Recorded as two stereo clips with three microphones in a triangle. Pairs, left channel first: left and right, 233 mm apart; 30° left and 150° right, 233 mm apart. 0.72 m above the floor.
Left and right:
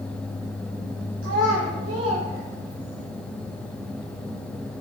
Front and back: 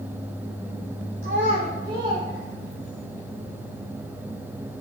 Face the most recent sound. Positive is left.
turn(degrees=-60)